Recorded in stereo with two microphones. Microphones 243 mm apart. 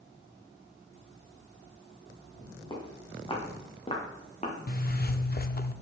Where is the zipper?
40° left (ahead or behind), 0.6 m.